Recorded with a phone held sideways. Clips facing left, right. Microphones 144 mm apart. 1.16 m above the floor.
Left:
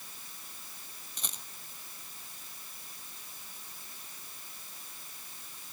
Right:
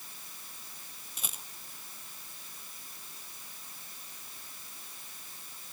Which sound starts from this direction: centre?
A rattle, at 1.2 s.